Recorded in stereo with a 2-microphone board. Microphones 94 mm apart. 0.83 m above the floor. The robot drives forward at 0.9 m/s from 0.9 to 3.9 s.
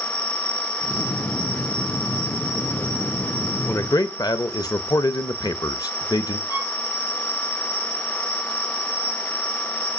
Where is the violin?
45° left (ahead or behind), 1.6 m.